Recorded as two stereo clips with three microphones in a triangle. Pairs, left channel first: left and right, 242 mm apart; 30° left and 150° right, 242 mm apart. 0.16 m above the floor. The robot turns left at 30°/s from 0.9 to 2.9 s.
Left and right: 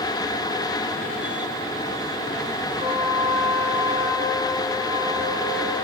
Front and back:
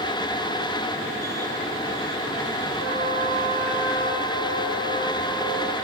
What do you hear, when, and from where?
2.8 s a trumpet: 175° right, 6.5 m